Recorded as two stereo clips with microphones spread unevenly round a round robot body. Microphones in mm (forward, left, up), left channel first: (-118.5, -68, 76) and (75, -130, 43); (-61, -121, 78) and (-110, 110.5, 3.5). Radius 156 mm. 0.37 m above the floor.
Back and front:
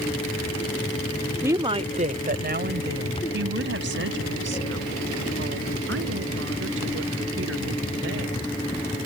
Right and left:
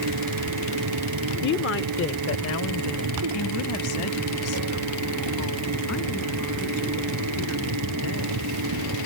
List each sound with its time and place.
1.4 s a woman speaking: 65° right; by 8.4 s 30° right